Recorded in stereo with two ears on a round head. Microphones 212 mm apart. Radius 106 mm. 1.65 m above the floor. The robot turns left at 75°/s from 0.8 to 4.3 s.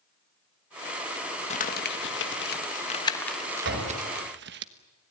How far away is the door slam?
About 6.5 m.